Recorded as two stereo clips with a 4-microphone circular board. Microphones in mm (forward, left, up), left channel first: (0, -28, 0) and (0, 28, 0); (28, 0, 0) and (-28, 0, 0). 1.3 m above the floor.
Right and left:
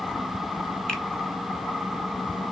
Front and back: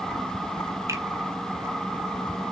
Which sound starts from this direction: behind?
A finger snap, at 0.9 s.